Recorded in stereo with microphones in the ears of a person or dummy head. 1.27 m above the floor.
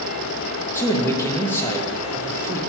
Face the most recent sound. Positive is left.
turn(degrees=5)  # may be behind; listen again after turning